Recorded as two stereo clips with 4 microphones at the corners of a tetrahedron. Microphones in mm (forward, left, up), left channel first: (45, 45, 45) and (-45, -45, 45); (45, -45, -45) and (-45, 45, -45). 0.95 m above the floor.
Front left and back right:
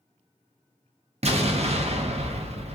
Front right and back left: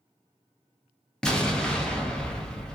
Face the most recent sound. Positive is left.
turn(degrees=-125)